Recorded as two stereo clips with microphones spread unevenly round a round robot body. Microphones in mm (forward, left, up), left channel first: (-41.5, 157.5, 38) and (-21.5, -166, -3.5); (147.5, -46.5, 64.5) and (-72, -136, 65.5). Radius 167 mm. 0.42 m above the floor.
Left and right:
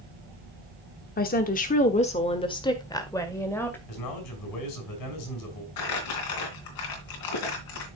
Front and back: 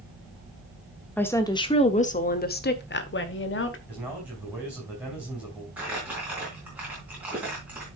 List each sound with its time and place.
1.2 s a woman speaking: 90° left, 1.1 m; by 3.8 s 5° left, 2.0 m
3.9 s a man speaking: 115° left, 4.5 m
5.8 s crumpling: 115° left, 3 m